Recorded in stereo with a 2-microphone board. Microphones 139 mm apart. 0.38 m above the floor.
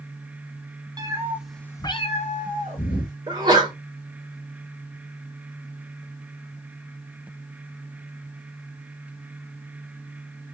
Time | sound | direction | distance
1.0 | a cat meowing | 25° right (ahead or behind) | 0.8 m
3.3 | a sneeze | 30° right (ahead or behind) | 1.3 m